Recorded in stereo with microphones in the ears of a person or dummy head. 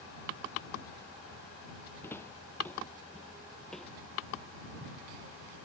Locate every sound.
2.0 s footsteps: 10° left (ahead or behind); by 4.9 s 5° right (ahead or behind)